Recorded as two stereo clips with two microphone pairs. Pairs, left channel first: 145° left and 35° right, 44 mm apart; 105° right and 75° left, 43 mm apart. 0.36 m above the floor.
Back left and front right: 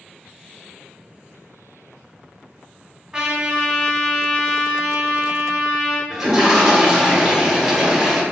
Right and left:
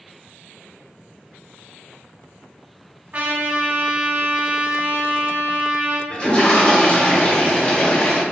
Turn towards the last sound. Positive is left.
turn(degrees=-105)